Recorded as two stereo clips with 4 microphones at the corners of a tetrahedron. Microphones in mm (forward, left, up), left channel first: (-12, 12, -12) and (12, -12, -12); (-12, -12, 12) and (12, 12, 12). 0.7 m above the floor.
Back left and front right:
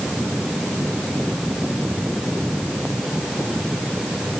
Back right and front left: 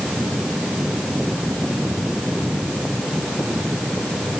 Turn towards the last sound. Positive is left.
No sound to turn to.